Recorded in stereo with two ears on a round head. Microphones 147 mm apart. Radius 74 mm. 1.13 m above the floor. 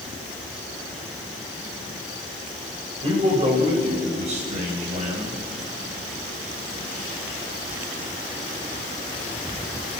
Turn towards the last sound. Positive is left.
turn(degrees=-50)  # may be behind; listen again after turning